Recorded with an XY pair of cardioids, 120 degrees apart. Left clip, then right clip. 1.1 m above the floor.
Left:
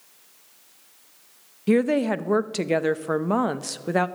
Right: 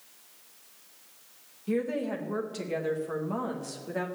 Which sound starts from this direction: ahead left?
A woman speaking, at 1.7 s.